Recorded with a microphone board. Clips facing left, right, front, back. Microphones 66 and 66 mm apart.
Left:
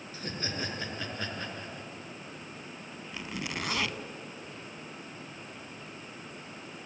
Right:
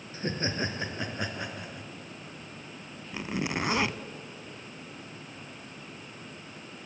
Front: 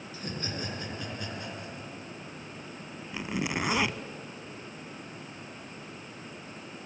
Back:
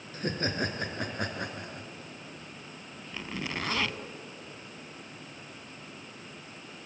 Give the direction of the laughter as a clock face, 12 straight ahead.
5 o'clock.